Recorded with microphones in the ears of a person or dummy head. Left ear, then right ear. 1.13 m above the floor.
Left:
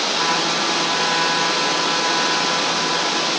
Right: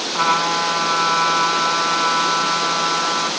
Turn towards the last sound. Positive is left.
turn(degrees=-75)  # may be behind; listen again after turning